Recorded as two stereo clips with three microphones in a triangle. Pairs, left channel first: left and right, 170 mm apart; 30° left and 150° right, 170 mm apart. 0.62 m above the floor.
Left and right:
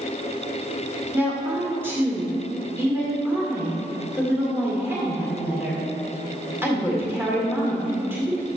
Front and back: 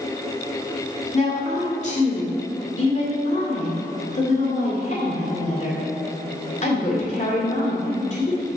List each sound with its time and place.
1.1 s a woman speaking: 15° right, 1.8 m